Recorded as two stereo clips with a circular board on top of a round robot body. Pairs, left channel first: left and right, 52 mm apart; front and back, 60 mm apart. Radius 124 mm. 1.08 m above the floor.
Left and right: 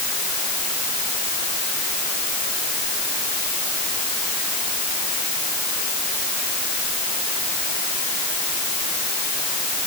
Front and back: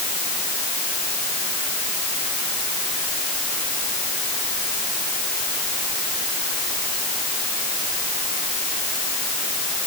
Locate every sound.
Only background noise.